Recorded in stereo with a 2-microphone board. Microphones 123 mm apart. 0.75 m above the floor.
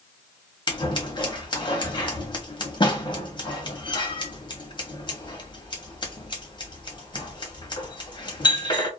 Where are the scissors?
40° left (ahead or behind), 0.9 m.